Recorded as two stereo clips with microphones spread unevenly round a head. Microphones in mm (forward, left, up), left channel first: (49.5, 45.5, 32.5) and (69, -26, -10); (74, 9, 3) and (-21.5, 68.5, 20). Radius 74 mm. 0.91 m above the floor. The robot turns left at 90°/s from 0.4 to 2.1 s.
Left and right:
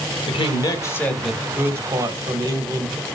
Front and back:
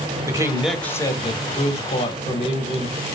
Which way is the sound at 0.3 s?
80° left.